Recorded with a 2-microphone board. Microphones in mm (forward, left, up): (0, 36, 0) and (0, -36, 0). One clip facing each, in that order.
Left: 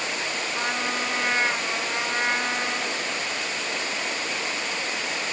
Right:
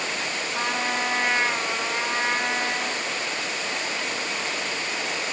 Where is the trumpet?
10° right (ahead or behind), 5 m.